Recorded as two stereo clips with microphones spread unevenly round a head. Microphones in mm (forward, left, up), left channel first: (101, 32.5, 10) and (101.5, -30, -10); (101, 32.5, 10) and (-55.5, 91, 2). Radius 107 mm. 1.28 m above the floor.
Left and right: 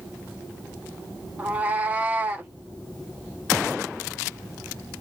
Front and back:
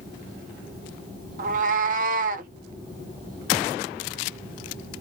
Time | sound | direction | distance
1.4 | a cat meowing | 175° right | 0.8 m